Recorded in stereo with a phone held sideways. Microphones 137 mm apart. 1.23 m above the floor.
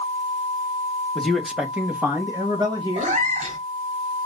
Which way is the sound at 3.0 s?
60° right (ahead or behind).